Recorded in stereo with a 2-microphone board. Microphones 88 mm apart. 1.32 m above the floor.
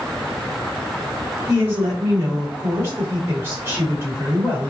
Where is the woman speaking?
25° right (ahead or behind), 3 m.